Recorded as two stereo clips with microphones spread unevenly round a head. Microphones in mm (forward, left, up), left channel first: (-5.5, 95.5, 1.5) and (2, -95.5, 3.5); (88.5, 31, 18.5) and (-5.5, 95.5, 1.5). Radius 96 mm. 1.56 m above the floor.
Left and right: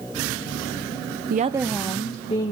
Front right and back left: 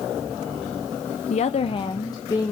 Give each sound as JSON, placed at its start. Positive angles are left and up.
{"t": 1.3, "sound": "a woman speaking", "azimuth_deg": -50, "distance_m": 0.6}